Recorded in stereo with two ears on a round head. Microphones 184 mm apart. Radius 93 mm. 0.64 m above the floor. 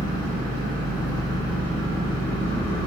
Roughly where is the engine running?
Left.